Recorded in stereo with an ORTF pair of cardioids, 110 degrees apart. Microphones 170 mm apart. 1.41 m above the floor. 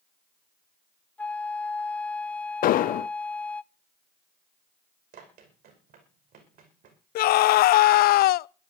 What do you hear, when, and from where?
1.2 s a flute: 10° left, 0.8 m
2.6 s an explosion: 60° left, 0.5 m
5.1 s running footsteps: 65° right, 6 m
7.2 s a scream: 65° left, 0.6 m